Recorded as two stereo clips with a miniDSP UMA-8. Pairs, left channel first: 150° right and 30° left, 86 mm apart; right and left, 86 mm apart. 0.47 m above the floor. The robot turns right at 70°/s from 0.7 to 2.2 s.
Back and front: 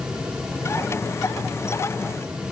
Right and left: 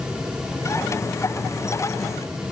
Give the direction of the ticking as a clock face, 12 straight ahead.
I don't hear ticking.